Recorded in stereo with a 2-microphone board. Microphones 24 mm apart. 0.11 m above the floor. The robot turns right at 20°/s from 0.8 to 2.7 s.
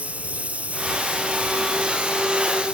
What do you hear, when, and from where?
0.0 s a lawn mower: 95° right; by 2.7 s 60° right